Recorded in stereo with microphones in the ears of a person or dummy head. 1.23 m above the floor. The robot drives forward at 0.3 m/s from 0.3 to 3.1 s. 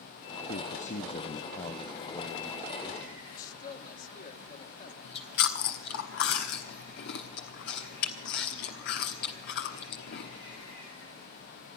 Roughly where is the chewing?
Left.